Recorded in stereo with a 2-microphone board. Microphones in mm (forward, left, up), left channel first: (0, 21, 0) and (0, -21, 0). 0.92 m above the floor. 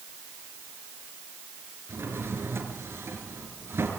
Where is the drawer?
75° right (ahead or behind), 4 m.